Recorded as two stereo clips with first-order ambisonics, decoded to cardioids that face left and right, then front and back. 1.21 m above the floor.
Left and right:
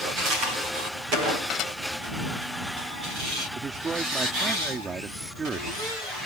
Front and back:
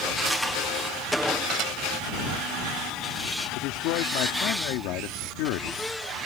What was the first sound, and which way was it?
Dishes clattering, 130° left.